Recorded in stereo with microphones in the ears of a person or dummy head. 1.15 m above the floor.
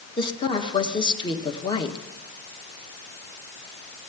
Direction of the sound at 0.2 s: 25° left (ahead or behind).